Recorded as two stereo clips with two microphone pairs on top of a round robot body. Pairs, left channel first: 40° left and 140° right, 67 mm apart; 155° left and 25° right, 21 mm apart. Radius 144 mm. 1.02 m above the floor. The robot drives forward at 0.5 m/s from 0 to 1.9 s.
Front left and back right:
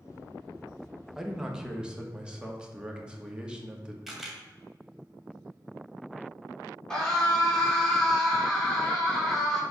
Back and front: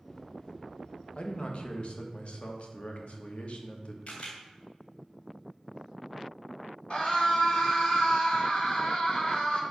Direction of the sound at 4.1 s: 130° left.